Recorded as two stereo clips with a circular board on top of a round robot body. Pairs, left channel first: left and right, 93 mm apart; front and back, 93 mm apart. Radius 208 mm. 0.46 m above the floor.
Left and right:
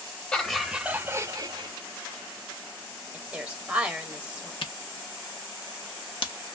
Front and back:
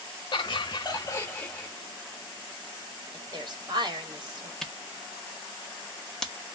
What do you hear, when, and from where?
0.3 s laughter: 20° left, 1.1 m; by 1.7 s 80° right, 1.2 m
3.1 s a woman speaking: 160° right, 1.7 m
4.6 s a camera shutter: 85° left, 1.0 m